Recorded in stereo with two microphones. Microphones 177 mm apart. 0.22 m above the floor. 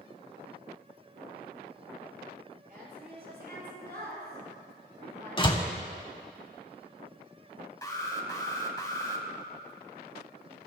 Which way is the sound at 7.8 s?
20° left (ahead or behind).